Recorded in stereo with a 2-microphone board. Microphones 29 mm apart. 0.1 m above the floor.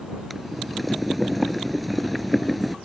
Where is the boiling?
Centre (ahead or behind).